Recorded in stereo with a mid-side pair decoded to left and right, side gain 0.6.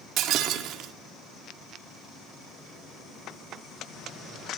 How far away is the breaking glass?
About 1.7 m.